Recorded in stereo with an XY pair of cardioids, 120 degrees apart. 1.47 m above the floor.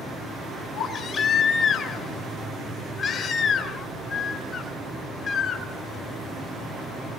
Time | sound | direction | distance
0.7 | a baby crying | 35° left | 4.5 m